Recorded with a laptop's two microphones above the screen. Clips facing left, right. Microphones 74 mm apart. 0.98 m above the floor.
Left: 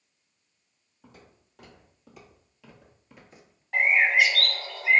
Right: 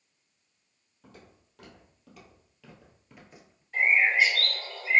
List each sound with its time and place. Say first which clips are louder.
1.0 s footsteps: even; 10° left (ahead or behind), 2 m; by 3.6 s 5° right (ahead or behind), 1.0 m
3.7 s a bird: left 2 dB; 80° left, 0.9 m